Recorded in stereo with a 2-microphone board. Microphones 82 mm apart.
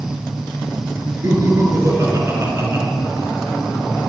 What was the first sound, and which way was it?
Laughter, 45° right (ahead or behind).